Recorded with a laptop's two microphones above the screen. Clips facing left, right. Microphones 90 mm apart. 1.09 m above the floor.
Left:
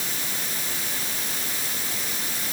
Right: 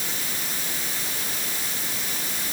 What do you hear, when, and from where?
Only background noise.